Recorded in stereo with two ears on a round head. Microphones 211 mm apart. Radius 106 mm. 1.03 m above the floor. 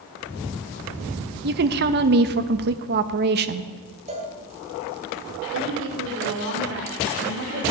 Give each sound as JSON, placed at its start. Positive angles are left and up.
{"t": 1.4, "sound": "a woman speaking", "side_deg": -45, "distance_m": 0.7}
{"t": 4.1, "sound": "a cowbell", "side_deg": -30, "distance_m": 1.8}
{"t": 5.5, "sound": "a woman speaking", "side_deg": -55, "distance_m": 3.0}